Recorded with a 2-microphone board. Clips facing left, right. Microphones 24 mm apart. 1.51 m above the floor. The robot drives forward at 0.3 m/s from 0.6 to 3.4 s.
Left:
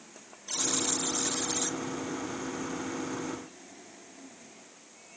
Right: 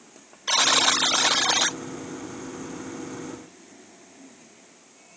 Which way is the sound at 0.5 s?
90° right.